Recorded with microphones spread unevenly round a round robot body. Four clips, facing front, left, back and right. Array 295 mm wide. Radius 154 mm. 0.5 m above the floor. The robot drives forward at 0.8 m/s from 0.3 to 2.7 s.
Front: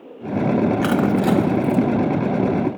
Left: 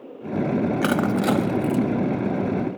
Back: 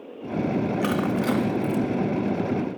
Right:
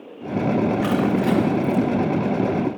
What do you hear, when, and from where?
0.8 s crushing: 65° left, 1.0 m; by 1.8 s 115° left, 1.0 m